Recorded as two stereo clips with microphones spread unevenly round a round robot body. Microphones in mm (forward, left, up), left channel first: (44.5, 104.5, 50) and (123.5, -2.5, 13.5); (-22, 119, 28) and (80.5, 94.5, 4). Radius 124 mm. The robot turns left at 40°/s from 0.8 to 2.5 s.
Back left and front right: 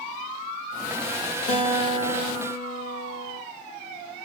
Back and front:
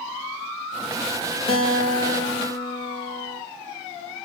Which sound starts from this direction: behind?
A guitar, at 1.5 s.